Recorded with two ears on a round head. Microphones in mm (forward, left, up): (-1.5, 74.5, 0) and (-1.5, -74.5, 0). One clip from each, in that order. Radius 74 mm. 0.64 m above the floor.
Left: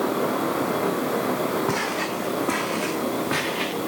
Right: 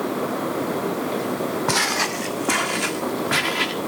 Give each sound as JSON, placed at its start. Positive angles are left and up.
{"t": 1.7, "sound": "footsteps", "side_deg": -60, "distance_m": 1.3}